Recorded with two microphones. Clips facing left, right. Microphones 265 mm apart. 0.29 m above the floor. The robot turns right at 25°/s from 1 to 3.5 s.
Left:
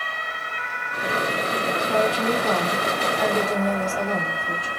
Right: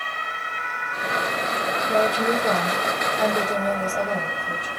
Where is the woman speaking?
40° right, 2.5 m; by 4.7 s straight ahead, 2.5 m.